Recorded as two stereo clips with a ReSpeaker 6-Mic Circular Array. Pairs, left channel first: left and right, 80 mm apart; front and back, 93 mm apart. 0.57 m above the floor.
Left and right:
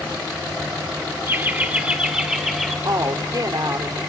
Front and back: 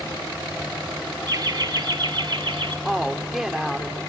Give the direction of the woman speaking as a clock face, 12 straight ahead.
3 o'clock.